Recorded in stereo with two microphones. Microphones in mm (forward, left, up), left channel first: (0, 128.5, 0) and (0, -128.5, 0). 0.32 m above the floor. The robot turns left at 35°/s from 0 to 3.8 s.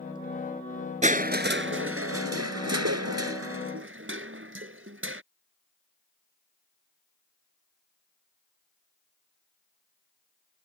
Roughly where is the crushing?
Ahead right.